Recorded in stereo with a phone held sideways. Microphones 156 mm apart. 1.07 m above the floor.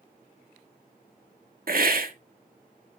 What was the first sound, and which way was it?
A hiss, 70° right (ahead or behind).